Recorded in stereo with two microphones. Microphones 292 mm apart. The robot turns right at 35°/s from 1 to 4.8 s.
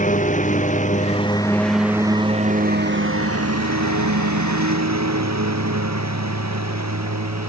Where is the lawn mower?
25° left (ahead or behind); by 7.5 s 70° right (ahead or behind).